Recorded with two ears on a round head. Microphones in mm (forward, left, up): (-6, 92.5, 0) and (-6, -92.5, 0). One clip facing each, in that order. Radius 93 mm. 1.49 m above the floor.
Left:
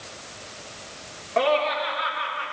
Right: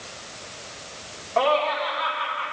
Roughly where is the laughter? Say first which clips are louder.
Even; left.